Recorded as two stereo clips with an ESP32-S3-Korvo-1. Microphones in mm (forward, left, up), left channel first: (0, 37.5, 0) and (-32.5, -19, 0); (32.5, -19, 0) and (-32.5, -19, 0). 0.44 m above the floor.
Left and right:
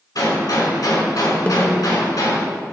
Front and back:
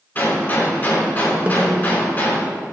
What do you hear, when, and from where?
0.1 s a gunshot: 60° left, 4.5 m
1.5 s a snare drum: 120° left, 0.9 m